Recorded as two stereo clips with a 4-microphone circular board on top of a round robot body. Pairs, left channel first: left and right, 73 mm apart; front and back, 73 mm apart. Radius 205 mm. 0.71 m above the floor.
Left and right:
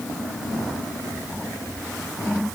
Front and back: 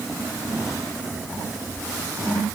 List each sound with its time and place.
Only background noise.